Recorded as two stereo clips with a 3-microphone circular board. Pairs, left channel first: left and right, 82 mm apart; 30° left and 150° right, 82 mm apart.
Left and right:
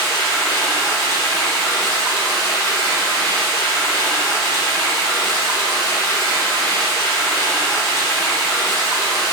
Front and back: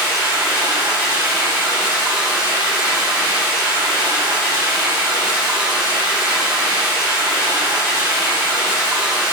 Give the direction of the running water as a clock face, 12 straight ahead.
7 o'clock.